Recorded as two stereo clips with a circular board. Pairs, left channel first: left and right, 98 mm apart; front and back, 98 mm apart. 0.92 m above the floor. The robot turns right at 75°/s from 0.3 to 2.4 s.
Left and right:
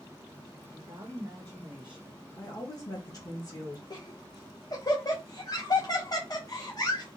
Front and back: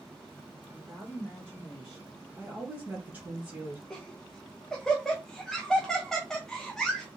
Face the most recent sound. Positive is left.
turn(degrees=85)